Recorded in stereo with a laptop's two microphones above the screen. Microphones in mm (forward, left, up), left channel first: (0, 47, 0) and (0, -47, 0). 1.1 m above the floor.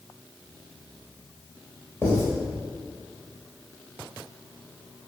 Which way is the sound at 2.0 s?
20° left (ahead or behind).